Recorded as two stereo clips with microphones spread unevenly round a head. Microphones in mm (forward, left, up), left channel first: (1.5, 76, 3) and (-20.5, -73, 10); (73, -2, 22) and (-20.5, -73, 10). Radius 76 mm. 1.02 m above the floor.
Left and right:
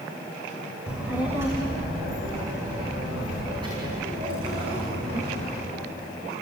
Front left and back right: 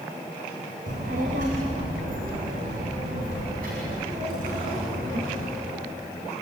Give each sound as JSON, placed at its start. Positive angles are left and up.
{"t": 0.9, "sound": "a child speaking", "azimuth_deg": 180, "distance_m": 2.5}